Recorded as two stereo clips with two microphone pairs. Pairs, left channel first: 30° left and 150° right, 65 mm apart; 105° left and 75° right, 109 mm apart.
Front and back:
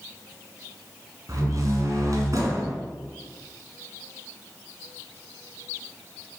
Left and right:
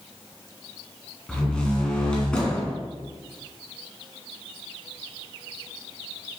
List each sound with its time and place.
1.3 s a door slam: 175° right, 2.0 m